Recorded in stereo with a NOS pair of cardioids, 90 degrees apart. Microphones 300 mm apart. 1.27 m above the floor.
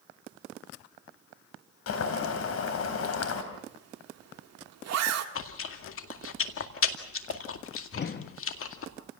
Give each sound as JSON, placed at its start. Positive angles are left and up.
{"t": 1.9, "sound": "boiling", "azimuth_deg": 55, "distance_m": 3.5}
{"t": 3.5, "sound": "a zipper", "azimuth_deg": -65, "distance_m": 2.0}
{"t": 5.3, "sound": "chewing", "azimuth_deg": 50, "distance_m": 2.0}
{"t": 7.9, "sound": "a whoosh", "azimuth_deg": 40, "distance_m": 1.2}